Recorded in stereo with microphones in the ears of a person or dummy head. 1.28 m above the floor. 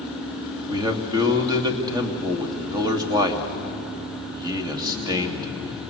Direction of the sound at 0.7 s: 15° right (ahead or behind).